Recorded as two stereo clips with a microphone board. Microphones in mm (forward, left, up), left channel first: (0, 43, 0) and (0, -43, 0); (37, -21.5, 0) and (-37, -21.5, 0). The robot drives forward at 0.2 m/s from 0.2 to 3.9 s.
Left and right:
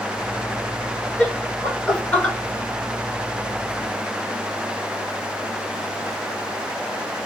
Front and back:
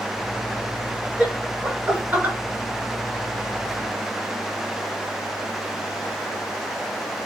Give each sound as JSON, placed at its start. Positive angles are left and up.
{"t": 1.2, "sound": "laughter", "azimuth_deg": 150, "distance_m": 1.6}